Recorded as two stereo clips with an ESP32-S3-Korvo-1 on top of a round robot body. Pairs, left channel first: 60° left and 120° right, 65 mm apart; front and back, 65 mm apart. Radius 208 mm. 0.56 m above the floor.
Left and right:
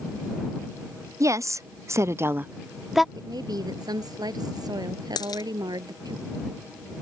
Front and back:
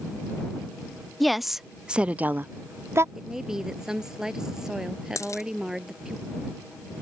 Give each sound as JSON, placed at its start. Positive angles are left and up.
{"t": 1.2, "sound": "a woman speaking", "azimuth_deg": -90}
{"t": 3.1, "sound": "a woman speaking", "azimuth_deg": -100}
{"t": 5.2, "sound": "a dropped coin", "azimuth_deg": 45}